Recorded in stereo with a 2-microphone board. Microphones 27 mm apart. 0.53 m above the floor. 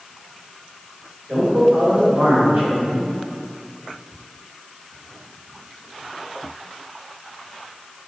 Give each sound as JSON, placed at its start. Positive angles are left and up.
{"t": 1.3, "sound": "a man speaking", "side_deg": -60, "distance_m": 1.9}